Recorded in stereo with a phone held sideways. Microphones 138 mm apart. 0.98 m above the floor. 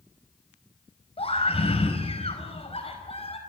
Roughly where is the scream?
Left.